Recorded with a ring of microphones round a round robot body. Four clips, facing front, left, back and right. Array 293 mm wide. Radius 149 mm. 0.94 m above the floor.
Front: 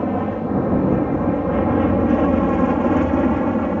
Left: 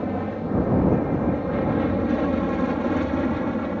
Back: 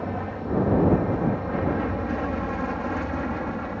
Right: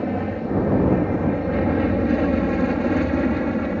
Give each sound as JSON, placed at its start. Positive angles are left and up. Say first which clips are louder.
{"t": 0.0, "sound": "an aircraft", "louder": "right 2 dB, front 9 dB", "azimuth_deg": -15}